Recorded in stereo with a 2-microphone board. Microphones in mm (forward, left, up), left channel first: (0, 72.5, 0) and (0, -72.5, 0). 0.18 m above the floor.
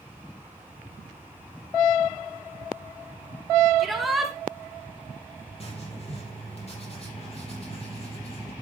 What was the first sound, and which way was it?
A shout, centre (ahead or behind).